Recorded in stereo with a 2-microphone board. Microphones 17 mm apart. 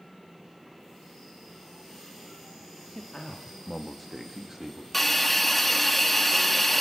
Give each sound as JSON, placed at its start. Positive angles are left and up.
{"t": 3.0, "sound": "a man speaking", "side_deg": 50, "distance_m": 2.0}
{"t": 4.9, "sound": "a hiss", "side_deg": 10, "distance_m": 1.6}